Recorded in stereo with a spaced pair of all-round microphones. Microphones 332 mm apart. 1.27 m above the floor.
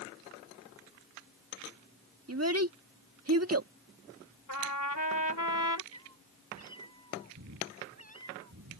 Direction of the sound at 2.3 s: 45° right (ahead or behind).